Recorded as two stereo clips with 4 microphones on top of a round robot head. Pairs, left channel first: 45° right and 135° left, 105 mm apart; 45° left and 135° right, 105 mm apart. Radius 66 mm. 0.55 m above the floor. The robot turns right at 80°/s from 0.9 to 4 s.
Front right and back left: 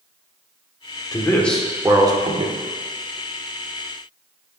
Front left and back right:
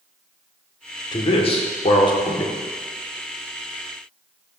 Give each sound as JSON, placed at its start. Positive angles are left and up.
{"t": 1.1, "sound": "a man speaking", "azimuth_deg": 5, "distance_m": 1.2}